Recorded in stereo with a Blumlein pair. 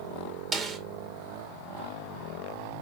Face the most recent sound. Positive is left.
turn(degrees=-20)